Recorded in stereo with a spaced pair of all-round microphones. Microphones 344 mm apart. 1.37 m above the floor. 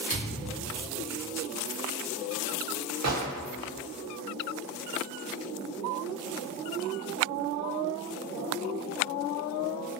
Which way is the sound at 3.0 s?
50° right (ahead or behind).